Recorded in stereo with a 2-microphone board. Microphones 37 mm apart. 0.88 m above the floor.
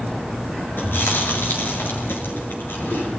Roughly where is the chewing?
Left.